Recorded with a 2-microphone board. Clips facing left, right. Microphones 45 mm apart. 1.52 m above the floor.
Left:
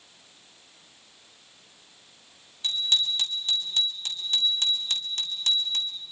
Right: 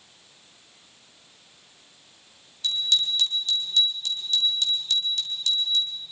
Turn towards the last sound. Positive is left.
turn(degrees=45)  # may be behind; listen again after turning